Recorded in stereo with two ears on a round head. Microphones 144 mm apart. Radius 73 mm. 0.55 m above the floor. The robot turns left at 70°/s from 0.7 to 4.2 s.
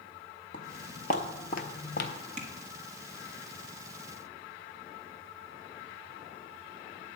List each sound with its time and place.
0.5 s footsteps: 60° left (ahead or behind), 1.3 m; by 2.1 s 65° left (ahead or behind), 1.1 m
2.4 s tapping: 40° right (ahead or behind), 1.4 m; by 2.5 s 50° right (ahead or behind), 1.4 m